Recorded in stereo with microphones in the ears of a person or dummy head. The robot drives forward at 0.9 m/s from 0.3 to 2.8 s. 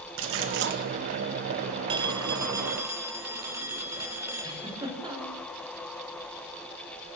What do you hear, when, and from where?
0.2 s a splash: 65° right (ahead or behind), 2 m; by 0.8 s 55° right (ahead or behind), 2.5 m
1.9 s a phone ringing: 25° right (ahead or behind), 0.8 m; by 4.9 s 15° right (ahead or behind), 1.6 m
4.4 s a giggle: 25° right (ahead or behind), 5 m